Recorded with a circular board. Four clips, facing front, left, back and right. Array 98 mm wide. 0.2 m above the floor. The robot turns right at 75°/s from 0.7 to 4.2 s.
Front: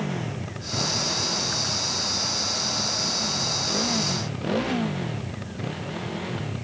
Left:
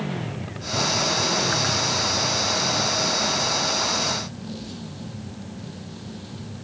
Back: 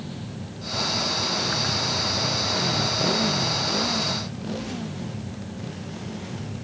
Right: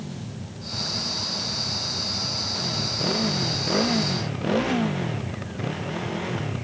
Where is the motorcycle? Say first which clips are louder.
Left 6 dB, front 5 dB; 45° left; by 6.7 s 70° right.